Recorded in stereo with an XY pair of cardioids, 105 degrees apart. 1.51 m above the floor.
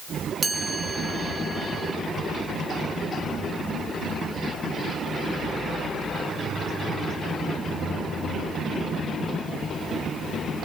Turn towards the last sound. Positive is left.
turn(degrees=-30)